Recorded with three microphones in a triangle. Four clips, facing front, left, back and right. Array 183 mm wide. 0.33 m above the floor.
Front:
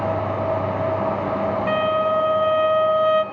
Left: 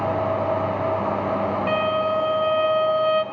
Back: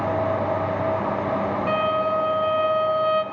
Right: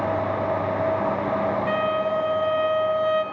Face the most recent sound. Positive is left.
turn(degrees=40)